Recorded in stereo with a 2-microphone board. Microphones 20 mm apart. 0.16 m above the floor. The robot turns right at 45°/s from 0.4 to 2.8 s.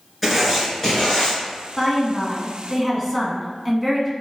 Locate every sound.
0.2 s writing: straight ahead, 2 m; by 1.4 s 40° left, 2 m
1.8 s a woman speaking: 20° left (ahead or behind), 1.1 m; by 4.1 s centre (ahead or behind), 1.1 m